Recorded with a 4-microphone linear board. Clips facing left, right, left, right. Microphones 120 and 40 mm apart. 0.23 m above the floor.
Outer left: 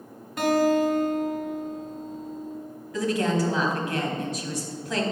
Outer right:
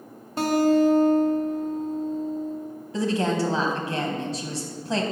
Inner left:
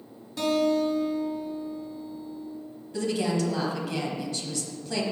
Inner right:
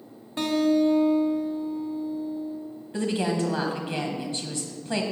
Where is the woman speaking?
30° right (ahead or behind), 1.1 m.